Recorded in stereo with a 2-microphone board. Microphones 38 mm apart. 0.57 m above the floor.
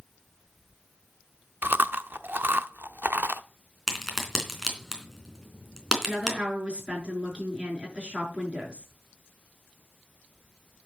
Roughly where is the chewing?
Right.